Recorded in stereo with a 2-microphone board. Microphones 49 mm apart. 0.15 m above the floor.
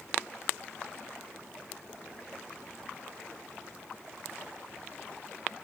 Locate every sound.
Only background noise.